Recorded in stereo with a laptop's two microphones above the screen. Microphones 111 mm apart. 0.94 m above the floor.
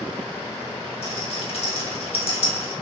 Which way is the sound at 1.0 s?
60° left (ahead or behind).